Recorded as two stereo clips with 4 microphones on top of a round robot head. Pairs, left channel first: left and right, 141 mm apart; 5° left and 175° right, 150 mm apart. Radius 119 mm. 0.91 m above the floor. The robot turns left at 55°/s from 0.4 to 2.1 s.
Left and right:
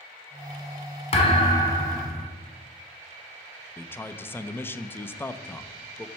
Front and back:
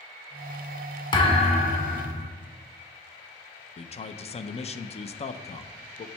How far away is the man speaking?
About 0.6 m.